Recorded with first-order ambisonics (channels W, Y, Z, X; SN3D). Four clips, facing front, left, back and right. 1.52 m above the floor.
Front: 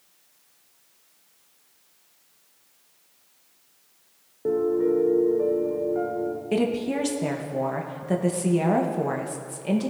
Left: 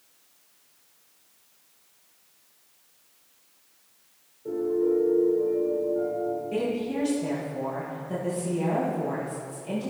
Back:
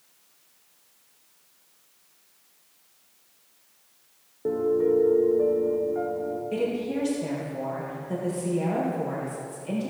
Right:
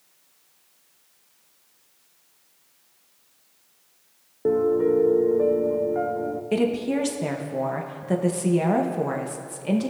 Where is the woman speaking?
50° right, 1.0 m.